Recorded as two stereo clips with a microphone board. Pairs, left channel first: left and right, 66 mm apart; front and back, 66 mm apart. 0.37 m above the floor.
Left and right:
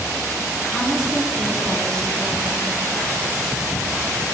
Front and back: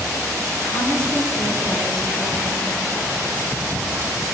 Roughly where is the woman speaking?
Ahead.